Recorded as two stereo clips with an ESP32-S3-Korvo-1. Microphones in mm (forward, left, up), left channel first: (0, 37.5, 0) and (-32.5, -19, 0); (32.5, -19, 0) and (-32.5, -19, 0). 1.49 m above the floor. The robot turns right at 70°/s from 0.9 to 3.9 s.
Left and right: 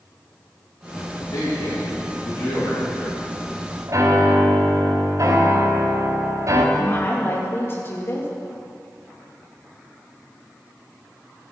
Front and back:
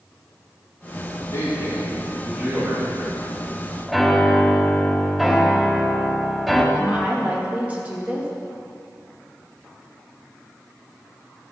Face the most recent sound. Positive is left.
turn(degrees=110)